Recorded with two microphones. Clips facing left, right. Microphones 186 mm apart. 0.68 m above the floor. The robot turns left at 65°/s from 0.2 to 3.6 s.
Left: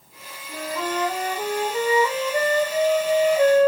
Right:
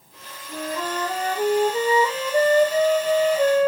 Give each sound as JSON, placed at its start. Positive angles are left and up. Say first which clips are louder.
{"t": 0.5, "sound": "a flute", "louder": "left 1 dB", "side_deg": 0, "distance_m": 1.1}